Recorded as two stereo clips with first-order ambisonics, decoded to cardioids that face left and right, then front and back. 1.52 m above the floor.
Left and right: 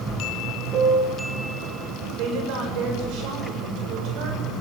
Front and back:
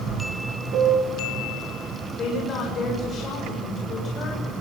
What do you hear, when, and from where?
0.7 s a piano: 145° right, 6 m
2.2 s a woman speaking: 65° right, 6.5 m